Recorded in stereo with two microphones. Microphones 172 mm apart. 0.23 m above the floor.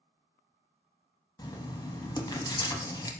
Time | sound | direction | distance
1.4 | writing | 25° left (ahead or behind) | 0.5 m